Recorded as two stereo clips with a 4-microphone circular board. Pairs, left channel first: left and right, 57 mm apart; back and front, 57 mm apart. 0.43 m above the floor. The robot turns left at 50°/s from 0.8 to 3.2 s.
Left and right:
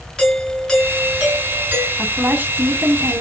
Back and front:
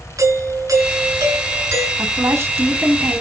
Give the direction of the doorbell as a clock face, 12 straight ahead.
12 o'clock.